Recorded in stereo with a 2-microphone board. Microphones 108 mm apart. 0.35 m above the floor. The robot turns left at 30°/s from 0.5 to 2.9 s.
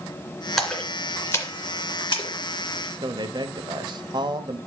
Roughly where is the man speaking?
Right.